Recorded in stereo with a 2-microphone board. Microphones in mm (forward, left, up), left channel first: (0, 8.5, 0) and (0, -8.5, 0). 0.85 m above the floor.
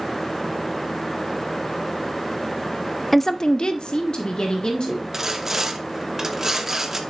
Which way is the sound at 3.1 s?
10° left (ahead or behind).